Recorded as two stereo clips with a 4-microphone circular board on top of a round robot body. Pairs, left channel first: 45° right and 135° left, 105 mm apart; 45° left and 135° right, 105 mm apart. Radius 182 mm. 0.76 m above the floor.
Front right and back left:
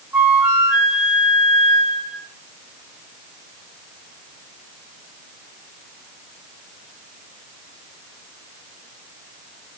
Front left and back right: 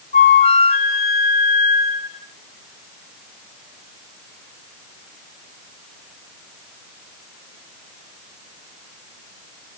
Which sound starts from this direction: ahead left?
A flute, at 0.1 s.